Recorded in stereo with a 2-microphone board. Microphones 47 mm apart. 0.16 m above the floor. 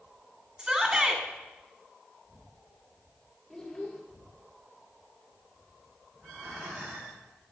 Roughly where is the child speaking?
Centre.